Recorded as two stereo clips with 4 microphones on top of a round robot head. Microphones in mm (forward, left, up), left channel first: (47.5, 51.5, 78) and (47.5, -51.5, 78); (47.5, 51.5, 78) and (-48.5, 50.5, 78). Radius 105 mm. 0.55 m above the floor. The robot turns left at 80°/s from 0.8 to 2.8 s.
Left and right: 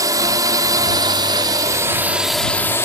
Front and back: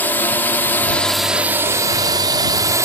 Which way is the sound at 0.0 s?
60° right.